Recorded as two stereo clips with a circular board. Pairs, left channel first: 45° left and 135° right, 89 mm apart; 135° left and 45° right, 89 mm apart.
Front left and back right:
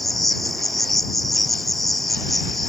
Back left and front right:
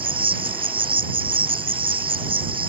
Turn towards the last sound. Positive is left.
turn(degrees=-45)